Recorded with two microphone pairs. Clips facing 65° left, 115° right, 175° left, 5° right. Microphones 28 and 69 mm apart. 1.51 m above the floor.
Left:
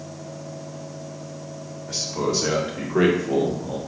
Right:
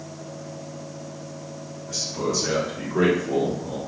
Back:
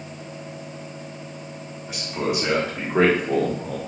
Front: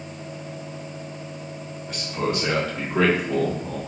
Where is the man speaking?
95° left, 1.7 m; by 3.8 s 145° left, 1.0 m.